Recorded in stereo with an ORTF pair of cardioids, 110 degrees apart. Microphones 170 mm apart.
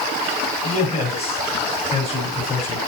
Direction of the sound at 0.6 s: 35° left.